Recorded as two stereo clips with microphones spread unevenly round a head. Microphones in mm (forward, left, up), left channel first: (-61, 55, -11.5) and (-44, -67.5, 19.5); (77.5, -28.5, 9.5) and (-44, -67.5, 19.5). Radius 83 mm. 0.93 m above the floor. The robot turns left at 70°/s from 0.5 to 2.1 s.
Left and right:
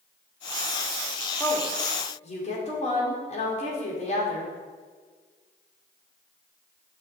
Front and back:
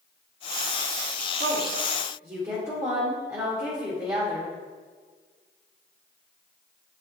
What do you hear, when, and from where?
1.4 s a woman speaking: 175° left, 2.5 m; by 4.5 s 125° left, 2.5 m